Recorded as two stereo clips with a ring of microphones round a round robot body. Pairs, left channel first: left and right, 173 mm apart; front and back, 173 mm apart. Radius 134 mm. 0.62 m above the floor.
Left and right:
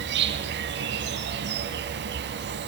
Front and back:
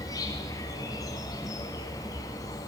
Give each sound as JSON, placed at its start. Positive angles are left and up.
{"t": 0.0, "sound": "an insect", "azimuth_deg": -75, "distance_m": 1.5}